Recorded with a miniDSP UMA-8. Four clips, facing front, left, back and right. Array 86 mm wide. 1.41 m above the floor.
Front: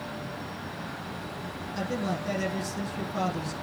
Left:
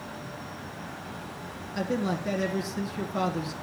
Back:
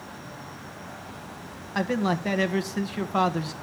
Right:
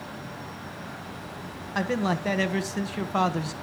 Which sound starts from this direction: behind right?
A man speaking, at 1.8 s.